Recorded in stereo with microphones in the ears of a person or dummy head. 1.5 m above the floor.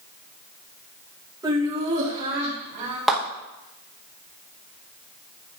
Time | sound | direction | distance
1.4 | laughter | 25° right (ahead or behind) | 1.7 m
3.1 | a clap | centre (ahead or behind) | 1.7 m